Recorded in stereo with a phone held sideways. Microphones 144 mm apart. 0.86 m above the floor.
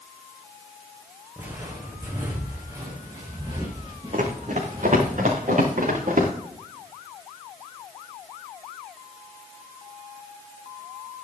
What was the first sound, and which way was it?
Footsteps, 15° right (ahead or behind).